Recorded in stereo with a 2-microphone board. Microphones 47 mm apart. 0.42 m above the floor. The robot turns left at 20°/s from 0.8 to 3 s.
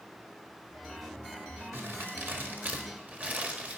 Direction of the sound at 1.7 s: 50° right (ahead or behind).